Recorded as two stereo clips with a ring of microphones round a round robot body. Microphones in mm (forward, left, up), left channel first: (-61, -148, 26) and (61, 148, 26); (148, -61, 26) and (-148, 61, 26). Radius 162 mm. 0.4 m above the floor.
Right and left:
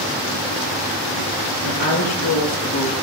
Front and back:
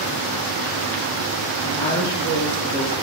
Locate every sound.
1.6 s a woman speaking: 100° right, 7.5 m; by 2.9 s 105° right, 7 m